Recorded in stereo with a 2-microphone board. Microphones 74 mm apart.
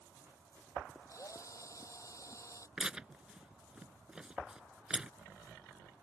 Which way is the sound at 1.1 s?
45° left (ahead or behind).